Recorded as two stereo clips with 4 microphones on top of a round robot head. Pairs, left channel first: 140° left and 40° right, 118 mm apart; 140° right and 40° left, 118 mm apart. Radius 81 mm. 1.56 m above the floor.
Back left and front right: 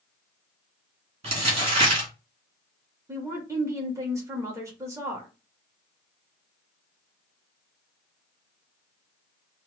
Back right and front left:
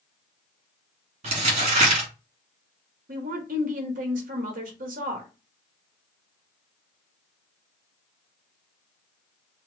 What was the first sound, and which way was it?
Crumpling, 5° left.